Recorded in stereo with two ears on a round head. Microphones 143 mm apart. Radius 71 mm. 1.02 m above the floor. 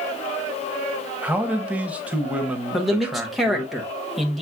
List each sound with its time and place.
1.2 s a man speaking: 10° right (ahead or behind), 0.8 m
2.7 s a man speaking: centre (ahead or behind), 1.0 m